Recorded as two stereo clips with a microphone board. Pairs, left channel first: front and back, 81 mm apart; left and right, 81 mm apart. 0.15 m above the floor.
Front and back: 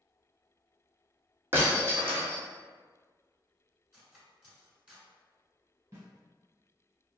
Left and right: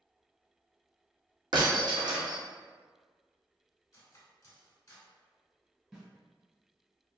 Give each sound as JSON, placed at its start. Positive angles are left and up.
{"t": 1.5, "sound": "breaking glass", "azimuth_deg": -120, "distance_m": 1.0}
{"t": 3.9, "sound": "cutlery clinking", "azimuth_deg": 105, "distance_m": 1.0}
{"t": 5.9, "sound": "a snare drum", "azimuth_deg": -165, "distance_m": 1.2}